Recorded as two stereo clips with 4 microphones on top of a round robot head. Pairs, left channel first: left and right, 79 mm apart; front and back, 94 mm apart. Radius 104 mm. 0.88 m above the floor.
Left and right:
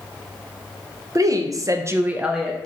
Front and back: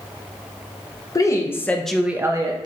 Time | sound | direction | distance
1.1 | a woman speaking | 50° right | 1.0 m